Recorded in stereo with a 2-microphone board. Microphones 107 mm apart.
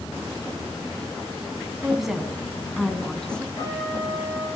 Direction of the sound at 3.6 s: 40° left (ahead or behind).